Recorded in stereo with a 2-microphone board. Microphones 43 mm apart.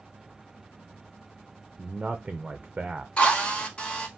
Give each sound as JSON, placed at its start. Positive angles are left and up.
{"t": 1.8, "sound": "a man speaking", "side_deg": -20, "distance_m": 0.6}
{"t": 3.2, "sound": "a drill", "side_deg": 25, "distance_m": 1.0}